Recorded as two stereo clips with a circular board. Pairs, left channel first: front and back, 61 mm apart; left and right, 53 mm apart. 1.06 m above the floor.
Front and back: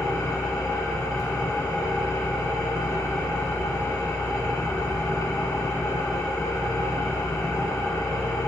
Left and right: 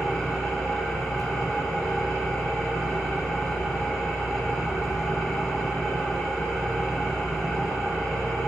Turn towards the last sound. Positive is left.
turn(degrees=5)